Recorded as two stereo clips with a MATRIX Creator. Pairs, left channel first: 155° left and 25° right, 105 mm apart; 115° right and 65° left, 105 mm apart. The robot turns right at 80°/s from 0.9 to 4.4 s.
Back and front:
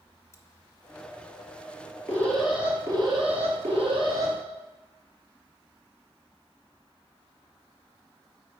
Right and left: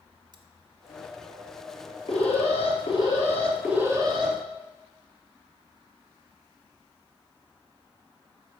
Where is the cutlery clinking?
100° left, 1.1 m.